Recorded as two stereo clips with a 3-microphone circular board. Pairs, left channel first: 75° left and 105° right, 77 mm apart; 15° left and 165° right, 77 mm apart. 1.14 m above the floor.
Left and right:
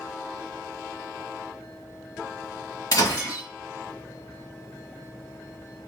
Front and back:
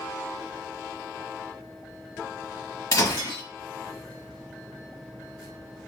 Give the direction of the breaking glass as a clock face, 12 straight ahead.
10 o'clock.